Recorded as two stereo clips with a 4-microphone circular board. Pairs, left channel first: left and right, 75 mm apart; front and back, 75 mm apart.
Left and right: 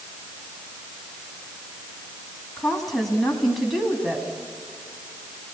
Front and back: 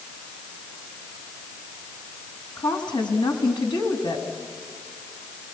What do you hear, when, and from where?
2.6 s a woman speaking: straight ahead, 4 m